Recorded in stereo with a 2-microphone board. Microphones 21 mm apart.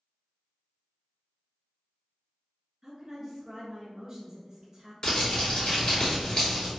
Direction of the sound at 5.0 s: 40° left (ahead or behind).